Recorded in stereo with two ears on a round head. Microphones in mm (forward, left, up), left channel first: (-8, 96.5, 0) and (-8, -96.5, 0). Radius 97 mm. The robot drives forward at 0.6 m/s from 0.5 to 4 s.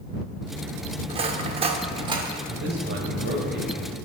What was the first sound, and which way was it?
Cutlery clinking, 25° right (ahead or behind).